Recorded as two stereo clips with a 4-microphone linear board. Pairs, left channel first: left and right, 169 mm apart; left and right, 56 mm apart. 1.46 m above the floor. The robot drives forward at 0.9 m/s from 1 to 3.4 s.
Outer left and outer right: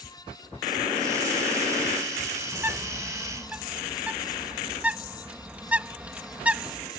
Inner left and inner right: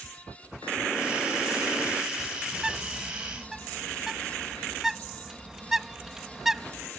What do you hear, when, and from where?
2.5 s a bird: 15° right (ahead or behind); by 6.9 s 10° right (ahead or behind)